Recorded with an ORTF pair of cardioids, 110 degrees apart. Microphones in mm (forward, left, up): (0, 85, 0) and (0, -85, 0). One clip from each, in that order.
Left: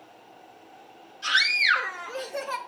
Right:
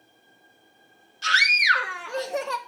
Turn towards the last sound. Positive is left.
turn(degrees=-40)